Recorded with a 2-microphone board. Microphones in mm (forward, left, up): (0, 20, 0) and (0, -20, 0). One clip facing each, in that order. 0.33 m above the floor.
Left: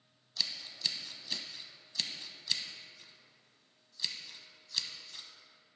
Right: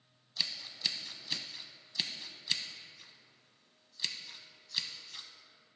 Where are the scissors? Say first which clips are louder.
Even; 15° right (ahead or behind), 0.8 m.